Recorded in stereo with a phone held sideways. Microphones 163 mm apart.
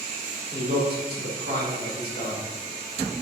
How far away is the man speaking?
About 1.9 m.